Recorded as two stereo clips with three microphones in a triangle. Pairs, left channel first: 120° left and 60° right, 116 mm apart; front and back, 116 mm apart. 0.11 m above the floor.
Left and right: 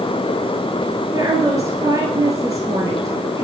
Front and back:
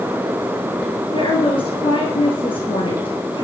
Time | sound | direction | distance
1.1 | a woman speaking | 10° right | 1.8 m